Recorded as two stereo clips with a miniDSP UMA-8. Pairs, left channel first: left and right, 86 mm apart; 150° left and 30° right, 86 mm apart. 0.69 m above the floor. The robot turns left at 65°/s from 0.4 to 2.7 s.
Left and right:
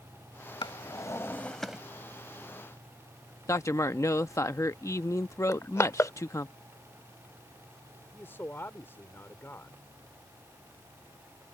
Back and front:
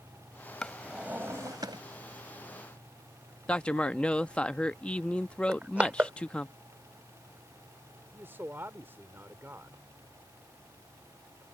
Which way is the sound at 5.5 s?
40° left.